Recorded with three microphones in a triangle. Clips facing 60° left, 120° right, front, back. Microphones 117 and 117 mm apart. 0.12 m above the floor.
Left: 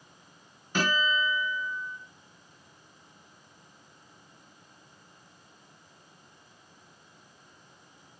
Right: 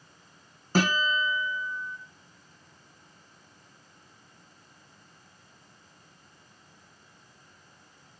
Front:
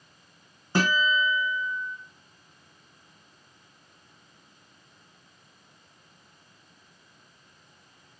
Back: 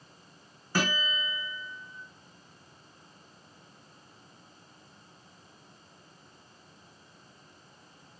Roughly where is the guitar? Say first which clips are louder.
Right 2 dB, front 7 dB; ahead right.